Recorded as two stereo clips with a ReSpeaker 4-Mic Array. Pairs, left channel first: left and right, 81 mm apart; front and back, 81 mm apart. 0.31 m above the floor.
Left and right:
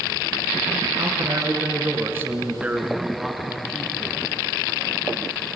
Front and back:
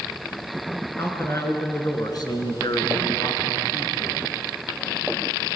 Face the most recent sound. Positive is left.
turn(degrees=20)